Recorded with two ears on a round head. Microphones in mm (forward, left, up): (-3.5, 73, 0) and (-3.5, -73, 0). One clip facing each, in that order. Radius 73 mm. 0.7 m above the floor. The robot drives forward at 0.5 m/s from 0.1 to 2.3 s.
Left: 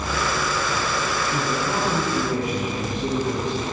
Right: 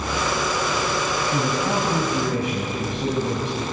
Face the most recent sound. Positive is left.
turn(degrees=-60)  # may be behind; listen again after turning